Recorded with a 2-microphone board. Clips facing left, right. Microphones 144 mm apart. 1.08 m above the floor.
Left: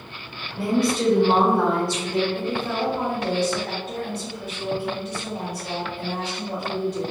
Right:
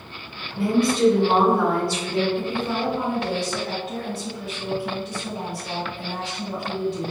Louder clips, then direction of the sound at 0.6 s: Right 2 dB; 40° left (ahead or behind).